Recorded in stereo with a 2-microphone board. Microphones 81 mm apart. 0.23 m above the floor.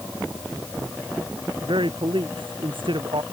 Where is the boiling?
No boiling in this recording.